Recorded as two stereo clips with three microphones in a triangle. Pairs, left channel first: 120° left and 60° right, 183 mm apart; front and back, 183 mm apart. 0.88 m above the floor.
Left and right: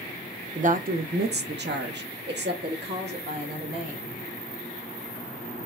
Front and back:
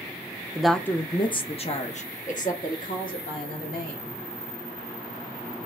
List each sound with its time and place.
0.6 s a woman speaking: 95° right, 0.5 m; by 4.1 s 35° right, 2 m